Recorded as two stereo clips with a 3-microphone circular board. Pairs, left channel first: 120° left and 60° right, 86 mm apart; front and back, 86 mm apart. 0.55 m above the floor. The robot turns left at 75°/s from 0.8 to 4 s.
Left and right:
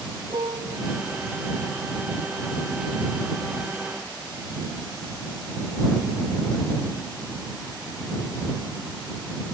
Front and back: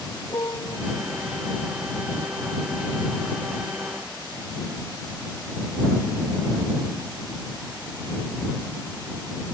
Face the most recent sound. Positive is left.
turn(degrees=75)